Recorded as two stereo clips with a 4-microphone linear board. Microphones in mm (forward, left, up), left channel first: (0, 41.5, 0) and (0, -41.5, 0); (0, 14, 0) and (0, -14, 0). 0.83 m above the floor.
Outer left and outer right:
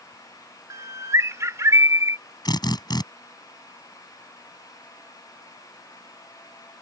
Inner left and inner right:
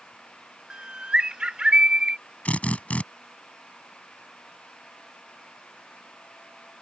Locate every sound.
0.7 s a bird: 40° right (ahead or behind)
2.5 s a drill: 60° left (ahead or behind)